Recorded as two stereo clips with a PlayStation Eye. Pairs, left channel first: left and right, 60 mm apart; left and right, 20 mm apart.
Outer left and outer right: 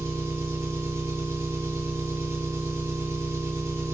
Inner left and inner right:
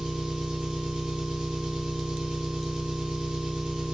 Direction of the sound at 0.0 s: 50° right (ahead or behind).